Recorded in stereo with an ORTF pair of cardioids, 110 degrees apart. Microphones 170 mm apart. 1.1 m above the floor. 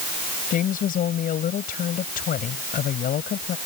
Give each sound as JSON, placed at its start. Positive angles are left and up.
{"t": 0.5, "sound": "a woman speaking", "azimuth_deg": 55}